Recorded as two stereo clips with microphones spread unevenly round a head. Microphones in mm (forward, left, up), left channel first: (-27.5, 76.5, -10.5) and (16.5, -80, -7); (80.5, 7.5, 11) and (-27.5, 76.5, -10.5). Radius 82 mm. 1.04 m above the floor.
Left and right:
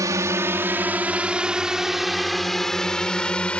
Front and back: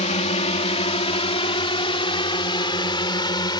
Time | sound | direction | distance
0.0 | a drone | 5° right | ?